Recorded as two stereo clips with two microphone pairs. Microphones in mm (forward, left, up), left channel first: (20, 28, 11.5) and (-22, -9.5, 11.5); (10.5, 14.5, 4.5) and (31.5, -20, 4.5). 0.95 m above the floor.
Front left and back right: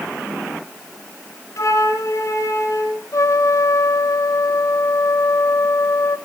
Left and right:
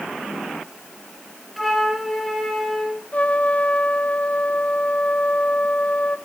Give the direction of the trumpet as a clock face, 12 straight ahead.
10 o'clock.